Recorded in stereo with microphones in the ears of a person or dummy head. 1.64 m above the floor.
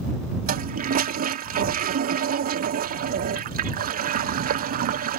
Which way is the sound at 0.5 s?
50° right (ahead or behind).